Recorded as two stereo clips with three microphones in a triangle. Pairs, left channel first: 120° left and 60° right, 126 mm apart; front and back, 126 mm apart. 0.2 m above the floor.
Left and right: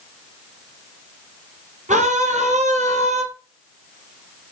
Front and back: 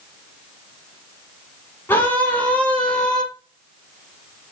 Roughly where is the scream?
Right.